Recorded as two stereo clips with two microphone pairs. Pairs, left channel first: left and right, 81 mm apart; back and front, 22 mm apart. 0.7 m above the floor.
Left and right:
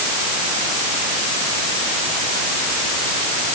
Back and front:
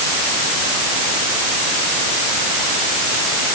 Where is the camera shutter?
I don't hear a camera shutter.